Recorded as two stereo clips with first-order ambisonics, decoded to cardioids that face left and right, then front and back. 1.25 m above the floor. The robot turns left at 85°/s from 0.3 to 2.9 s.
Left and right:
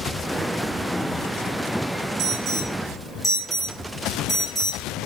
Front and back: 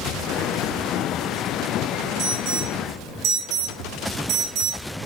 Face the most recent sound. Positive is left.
turn(degrees=170)